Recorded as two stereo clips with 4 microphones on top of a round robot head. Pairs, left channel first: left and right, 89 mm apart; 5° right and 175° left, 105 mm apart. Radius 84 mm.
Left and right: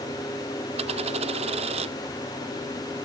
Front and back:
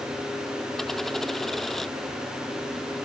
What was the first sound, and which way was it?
A dropped coin, 90° right.